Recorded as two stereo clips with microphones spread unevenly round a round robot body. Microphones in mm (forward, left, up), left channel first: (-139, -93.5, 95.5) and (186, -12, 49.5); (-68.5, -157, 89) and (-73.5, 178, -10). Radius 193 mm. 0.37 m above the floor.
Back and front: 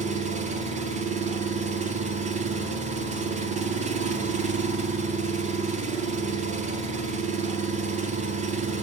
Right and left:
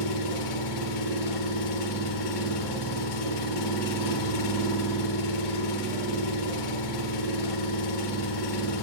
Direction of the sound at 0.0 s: 55° right.